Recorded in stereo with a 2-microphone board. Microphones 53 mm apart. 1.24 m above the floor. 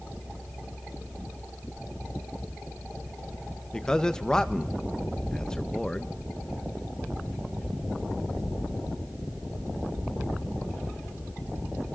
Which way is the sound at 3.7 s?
10° left (ahead or behind).